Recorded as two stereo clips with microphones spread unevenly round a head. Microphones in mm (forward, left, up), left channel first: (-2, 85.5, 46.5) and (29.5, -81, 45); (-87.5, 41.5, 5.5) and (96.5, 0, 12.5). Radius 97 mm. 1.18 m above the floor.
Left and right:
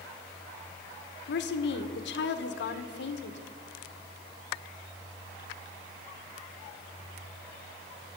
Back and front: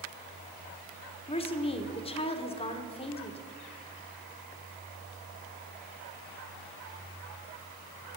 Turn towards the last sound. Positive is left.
turn(degrees=110)